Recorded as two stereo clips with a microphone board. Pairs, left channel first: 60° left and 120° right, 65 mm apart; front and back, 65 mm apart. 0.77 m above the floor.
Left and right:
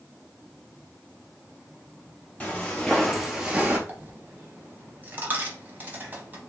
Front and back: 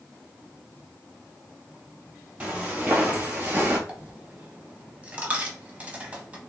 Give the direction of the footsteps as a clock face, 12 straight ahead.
8 o'clock.